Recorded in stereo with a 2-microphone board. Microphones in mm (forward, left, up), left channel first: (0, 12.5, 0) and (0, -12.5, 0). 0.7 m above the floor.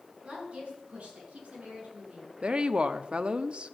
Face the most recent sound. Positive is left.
turn(degrees=-45)  # may be behind; listen again after turning